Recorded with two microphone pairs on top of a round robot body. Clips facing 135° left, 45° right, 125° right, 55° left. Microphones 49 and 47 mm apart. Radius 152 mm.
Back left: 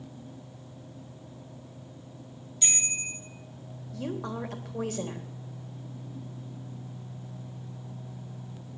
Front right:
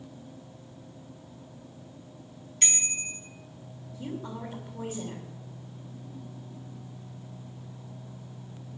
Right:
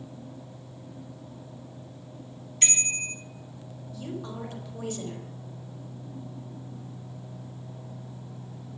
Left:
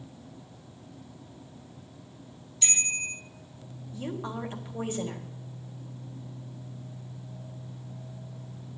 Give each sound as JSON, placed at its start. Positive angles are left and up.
{"t": 2.6, "sound": "a bicycle bell", "azimuth_deg": -90, "distance_m": 5.0}
{"t": 3.9, "sound": "a woman speaking", "azimuth_deg": 120, "distance_m": 3.5}